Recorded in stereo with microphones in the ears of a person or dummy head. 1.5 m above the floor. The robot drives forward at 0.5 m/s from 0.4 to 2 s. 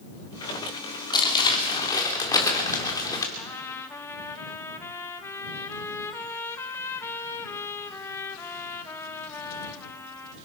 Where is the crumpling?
20° left (ahead or behind), 2.5 m.